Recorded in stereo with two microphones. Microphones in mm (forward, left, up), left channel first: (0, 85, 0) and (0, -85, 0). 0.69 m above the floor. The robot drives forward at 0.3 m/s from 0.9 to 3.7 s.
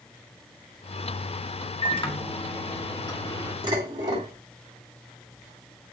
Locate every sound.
1.8 s a microwave: 30° left (ahead or behind), 1.2 m; by 3.5 s 25° left (ahead or behind), 1.6 m
3.6 s dishes clattering: 25° right (ahead or behind), 3 m